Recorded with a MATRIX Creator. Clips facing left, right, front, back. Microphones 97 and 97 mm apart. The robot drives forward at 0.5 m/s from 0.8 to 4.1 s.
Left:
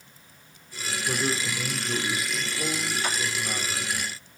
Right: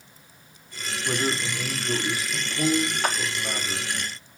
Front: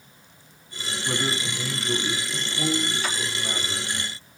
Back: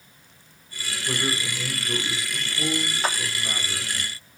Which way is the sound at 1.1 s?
60° right.